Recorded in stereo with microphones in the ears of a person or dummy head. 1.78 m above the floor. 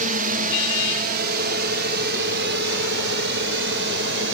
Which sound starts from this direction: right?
A drone, at 0.0 s.